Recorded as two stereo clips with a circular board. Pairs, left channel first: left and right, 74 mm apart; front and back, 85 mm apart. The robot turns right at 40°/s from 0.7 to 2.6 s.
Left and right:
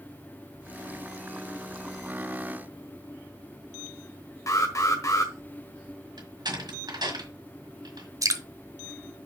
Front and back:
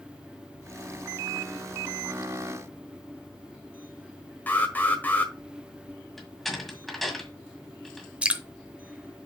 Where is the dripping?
105° right, 0.8 m.